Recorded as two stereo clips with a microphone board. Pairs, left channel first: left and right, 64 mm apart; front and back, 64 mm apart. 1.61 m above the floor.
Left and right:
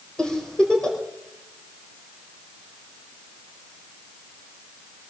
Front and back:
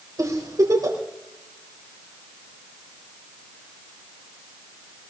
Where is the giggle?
170° left, 4 m.